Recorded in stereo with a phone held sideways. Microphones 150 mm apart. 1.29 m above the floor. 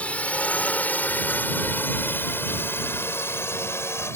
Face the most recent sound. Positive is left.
turn(degrees=15)  # may be behind; listen again after turning